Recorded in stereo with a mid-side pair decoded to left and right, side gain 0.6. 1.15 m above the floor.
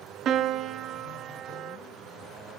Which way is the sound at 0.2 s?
50° right.